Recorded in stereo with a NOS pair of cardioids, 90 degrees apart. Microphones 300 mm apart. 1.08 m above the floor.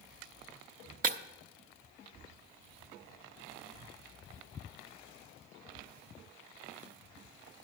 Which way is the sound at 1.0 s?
30° right.